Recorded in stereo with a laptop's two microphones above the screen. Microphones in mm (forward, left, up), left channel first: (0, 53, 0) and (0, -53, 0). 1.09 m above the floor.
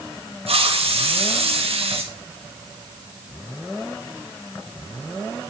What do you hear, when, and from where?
0.5 s a hiss: 70° right (ahead or behind), 1.7 m